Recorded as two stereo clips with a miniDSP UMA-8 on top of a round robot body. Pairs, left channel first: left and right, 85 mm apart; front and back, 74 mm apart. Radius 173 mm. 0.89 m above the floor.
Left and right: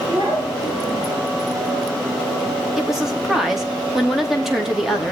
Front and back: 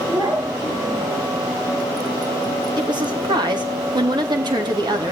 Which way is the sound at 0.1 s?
135° right.